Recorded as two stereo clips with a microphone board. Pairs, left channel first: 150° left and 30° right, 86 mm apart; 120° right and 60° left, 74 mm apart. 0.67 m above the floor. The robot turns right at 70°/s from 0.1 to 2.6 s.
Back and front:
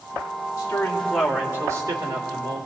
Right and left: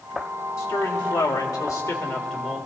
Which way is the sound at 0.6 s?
160° right.